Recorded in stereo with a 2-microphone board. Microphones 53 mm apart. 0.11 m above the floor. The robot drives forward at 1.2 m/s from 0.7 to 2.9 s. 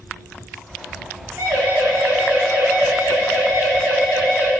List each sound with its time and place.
1.4 s a siren: 60° right (ahead or behind), 8 m; by 4.5 s 25° right (ahead or behind), 9.5 m